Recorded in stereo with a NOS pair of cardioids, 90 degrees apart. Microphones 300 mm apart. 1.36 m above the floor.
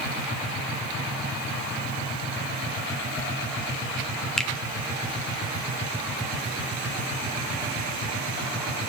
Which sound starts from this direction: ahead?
A finger snap, at 4.4 s.